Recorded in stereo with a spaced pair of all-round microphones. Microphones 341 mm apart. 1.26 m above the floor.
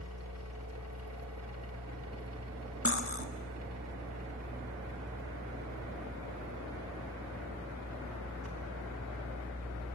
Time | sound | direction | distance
0.0 | a machine running | 50° right (ahead or behind) | 4.5 m
2.9 | cutlery clinking | 40° left (ahead or behind) | 1.6 m